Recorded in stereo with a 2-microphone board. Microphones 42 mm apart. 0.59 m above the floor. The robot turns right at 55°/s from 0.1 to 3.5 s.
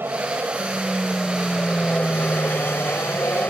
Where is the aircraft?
60° right (ahead or behind); by 3.5 s 50° left (ahead or behind).